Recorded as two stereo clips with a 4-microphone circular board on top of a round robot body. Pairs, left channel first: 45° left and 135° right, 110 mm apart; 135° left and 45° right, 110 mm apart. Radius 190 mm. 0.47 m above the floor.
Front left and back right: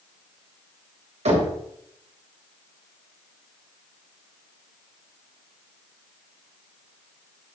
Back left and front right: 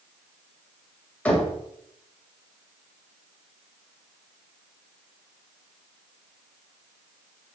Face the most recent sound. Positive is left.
turn(degrees=-145)